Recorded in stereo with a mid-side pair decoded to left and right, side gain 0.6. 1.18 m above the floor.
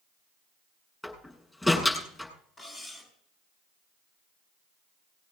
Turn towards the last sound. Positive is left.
turn(degrees=35)